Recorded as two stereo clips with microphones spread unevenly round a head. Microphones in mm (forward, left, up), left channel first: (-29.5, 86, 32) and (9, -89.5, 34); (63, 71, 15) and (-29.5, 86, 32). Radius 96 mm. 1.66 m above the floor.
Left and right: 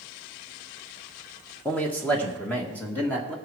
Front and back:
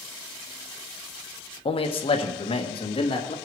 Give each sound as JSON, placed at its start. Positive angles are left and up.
{"t": 1.6, "sound": "a man speaking", "azimuth_deg": 20, "distance_m": 1.3}